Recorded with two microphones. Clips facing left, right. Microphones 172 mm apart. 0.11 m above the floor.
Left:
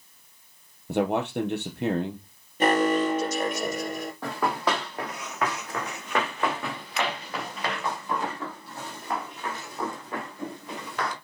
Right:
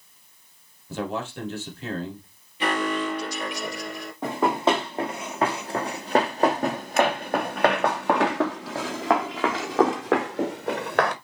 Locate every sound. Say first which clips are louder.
0.9 s a man speaking: left 5 dB; 60° left (ahead or behind), 2.5 m
2.6 s an alarm: left 4 dB; 40° left (ahead or behind), 4 m
4.2 s running footsteps: right 6 dB; 20° right (ahead or behind), 3 m; by 11.2 s 55° right (ahead or behind), 2 m